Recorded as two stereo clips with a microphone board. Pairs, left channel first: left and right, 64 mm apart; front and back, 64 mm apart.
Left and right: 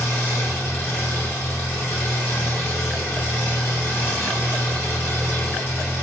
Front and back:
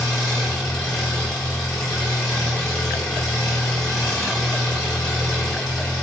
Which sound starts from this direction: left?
An engine running, at 0.0 s.